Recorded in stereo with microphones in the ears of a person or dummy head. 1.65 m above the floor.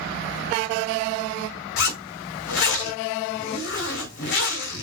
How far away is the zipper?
About 3.5 m.